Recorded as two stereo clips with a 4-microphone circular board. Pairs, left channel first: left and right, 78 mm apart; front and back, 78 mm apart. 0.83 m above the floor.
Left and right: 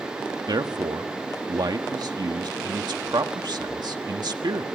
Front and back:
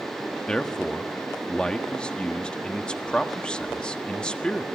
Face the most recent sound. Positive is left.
turn(degrees=-80)